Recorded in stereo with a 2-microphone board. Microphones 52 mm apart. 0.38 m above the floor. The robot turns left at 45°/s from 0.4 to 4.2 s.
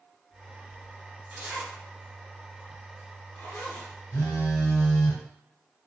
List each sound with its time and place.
1.3 s a zipper: 25° right (ahead or behind), 1.2 m; by 3.9 s 90° left, 1.2 m
4.1 s a phone buzzing: 60° left (ahead or behind), 1.3 m